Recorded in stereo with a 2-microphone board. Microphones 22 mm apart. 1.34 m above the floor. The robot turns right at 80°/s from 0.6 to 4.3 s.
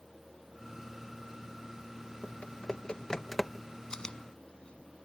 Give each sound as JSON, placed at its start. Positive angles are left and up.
{"t": 2.2, "sound": "typing on a keyboard", "side_deg": 80}
{"t": 3.9, "sound": "chewing", "side_deg": 30}